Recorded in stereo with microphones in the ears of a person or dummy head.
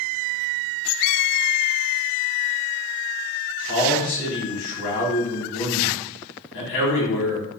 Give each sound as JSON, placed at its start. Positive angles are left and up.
{"t": 3.7, "sound": "a man speaking", "side_deg": 60, "distance_m": 1.2}